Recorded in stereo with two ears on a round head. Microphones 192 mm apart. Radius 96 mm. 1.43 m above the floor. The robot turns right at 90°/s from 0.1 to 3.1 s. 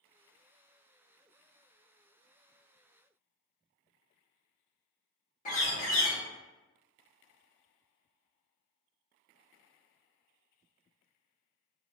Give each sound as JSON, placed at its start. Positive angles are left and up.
{"t": 5.5, "sound": "a bird", "side_deg": 40, "distance_m": 0.9}